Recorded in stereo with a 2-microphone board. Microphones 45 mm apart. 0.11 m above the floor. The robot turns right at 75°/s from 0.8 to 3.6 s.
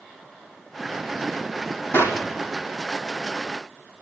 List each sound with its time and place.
1.9 s a clap: 65° left (ahead or behind), 4 m; by 2.2 s 75° left (ahead or behind), 4 m